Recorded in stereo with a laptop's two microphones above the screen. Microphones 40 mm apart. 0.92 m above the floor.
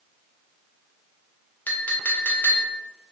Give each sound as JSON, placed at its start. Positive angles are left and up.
{"t": 1.7, "sound": "a clink", "side_deg": 45, "distance_m": 0.7}